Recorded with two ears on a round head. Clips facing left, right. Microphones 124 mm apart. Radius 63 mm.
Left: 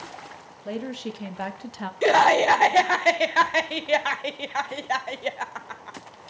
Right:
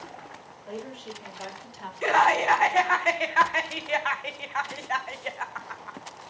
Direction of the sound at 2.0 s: 35° left (ahead or behind).